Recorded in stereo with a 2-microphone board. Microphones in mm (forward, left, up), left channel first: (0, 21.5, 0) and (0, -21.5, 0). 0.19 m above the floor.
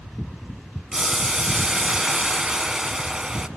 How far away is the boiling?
About 0.5 m.